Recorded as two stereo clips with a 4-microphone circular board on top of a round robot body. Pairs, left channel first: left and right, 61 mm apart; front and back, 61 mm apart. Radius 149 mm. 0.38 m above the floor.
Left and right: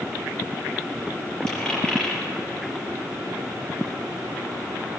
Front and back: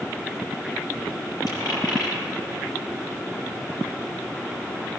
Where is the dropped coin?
10° left, 5.5 m.